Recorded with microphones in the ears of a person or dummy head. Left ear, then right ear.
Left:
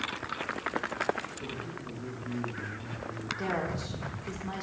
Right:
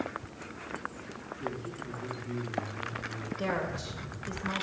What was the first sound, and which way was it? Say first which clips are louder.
A man speaking: right 1 dB; 70° left (ahead or behind).